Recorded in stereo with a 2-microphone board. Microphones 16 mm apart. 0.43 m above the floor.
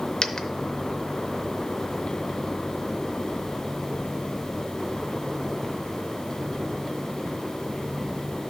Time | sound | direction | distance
0.2 | a dropped coin | 55° left (ahead or behind) | 0.6 m